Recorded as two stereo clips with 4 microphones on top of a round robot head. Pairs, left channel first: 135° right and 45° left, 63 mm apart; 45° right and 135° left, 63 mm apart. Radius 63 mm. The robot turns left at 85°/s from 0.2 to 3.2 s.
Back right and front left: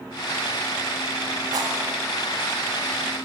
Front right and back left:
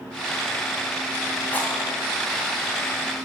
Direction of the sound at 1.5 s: 25° left.